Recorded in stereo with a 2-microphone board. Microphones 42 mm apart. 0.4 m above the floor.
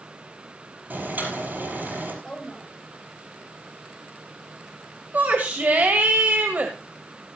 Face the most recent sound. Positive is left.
turn(degrees=-50)  # may be behind; listen again after turning